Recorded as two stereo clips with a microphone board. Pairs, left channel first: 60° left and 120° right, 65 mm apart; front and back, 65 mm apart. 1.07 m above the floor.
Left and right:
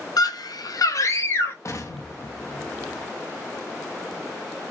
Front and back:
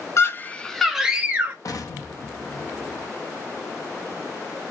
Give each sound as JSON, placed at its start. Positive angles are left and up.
{"t": 0.2, "sound": "a scream", "azimuth_deg": 40, "distance_m": 0.7}
{"t": 1.6, "sound": "an explosion", "azimuth_deg": 25, "distance_m": 0.7}